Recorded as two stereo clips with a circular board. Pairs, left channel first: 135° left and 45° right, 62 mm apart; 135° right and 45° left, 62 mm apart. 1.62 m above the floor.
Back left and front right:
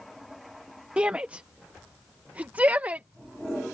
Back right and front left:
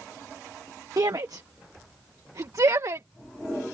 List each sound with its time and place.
1.0 s a shout: 25° left; by 3.1 s 15° left